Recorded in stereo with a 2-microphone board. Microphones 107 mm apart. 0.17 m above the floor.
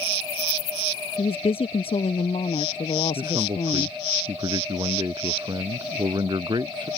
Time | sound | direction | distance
1.2 | a woman speaking | 60° left (ahead or behind) | ?
3.1 | a man speaking | 40° right (ahead or behind) | ?